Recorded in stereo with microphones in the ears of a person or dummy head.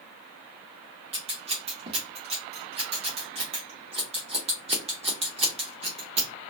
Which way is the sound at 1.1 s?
30° right (ahead or behind).